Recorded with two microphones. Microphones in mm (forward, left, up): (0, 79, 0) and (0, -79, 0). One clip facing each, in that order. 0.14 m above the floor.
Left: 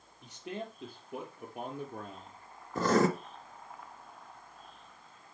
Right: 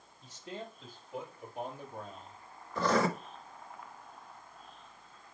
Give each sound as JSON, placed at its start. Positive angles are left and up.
{"t": 0.2, "sound": "a man speaking", "side_deg": 70, "distance_m": 5.0}
{"t": 2.8, "sound": "writing", "side_deg": 45, "distance_m": 1.4}